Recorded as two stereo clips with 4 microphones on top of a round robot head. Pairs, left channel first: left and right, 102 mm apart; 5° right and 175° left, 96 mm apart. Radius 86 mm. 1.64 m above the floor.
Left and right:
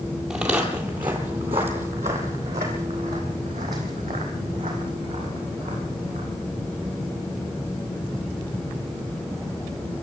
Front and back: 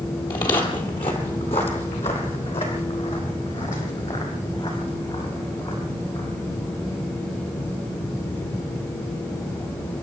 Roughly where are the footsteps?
Ahead.